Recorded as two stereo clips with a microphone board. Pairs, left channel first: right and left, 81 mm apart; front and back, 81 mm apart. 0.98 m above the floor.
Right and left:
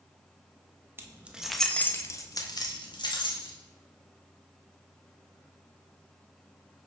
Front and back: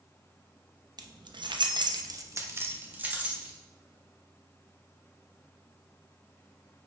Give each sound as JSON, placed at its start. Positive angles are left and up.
{"t": 1.0, "sound": "keys jangling", "azimuth_deg": 150, "distance_m": 0.6}